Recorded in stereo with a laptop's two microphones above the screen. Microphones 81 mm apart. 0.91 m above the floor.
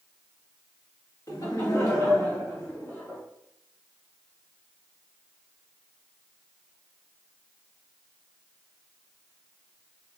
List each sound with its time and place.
1.3 s laughter: 50° left (ahead or behind), 1.6 m; by 3.2 s 35° left (ahead or behind), 3.5 m